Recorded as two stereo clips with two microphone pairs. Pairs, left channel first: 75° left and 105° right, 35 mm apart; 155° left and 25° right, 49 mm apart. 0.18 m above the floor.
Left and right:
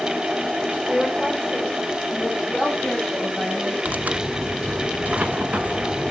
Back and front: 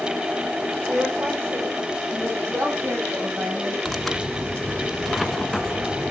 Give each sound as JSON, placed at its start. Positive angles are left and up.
{"t": 0.9, "sound": "a woman speaking", "azimuth_deg": -10, "distance_m": 6.0}
{"t": 3.9, "sound": "tearing paper", "azimuth_deg": -120, "distance_m": 1.0}